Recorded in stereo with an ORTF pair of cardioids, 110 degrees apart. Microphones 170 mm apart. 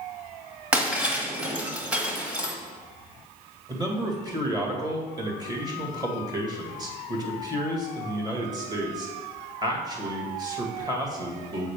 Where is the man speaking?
25° right, 1.9 m.